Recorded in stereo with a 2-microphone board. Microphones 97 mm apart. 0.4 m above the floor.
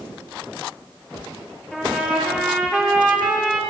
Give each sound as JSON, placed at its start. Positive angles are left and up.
{"t": 1.7, "sound": "a trumpet", "side_deg": 5, "distance_m": 8.5}